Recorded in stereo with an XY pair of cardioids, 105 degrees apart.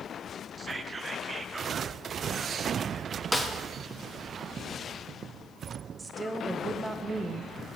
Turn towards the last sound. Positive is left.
turn(degrees=-25)